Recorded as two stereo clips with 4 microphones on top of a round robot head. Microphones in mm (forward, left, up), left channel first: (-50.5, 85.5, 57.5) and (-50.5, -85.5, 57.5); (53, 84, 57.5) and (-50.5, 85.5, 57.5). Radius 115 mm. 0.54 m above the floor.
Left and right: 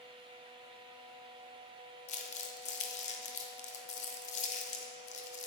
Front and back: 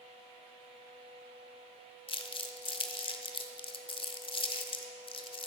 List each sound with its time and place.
2.1 s crumpling: 40° left, 0.8 m